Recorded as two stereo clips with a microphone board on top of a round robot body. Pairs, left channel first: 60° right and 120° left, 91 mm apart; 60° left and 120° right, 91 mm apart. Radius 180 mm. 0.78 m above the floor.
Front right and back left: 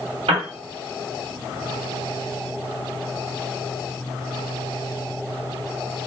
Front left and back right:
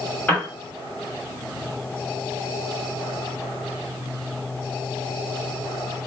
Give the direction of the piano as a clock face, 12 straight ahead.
8 o'clock.